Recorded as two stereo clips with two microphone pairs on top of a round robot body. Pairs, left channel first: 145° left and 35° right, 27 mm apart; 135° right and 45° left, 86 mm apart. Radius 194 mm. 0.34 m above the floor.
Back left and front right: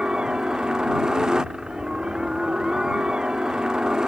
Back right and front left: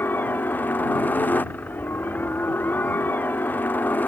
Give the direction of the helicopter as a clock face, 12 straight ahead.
3 o'clock.